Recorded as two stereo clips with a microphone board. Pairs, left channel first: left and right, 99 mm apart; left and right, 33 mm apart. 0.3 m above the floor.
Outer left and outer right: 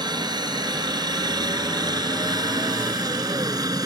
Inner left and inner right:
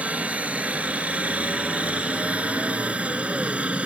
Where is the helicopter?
45° right (ahead or behind); by 3.9 s 40° right (ahead or behind).